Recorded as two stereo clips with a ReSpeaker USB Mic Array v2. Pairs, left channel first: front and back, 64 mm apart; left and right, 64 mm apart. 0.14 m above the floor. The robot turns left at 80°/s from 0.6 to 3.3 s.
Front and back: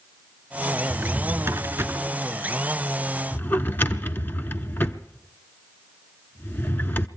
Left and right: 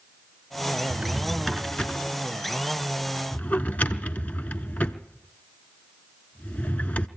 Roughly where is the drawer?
Behind right.